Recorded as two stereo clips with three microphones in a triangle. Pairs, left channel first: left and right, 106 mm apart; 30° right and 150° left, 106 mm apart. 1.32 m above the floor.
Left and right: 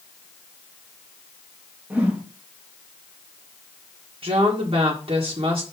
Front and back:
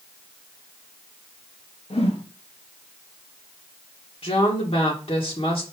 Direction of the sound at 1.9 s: 15° right.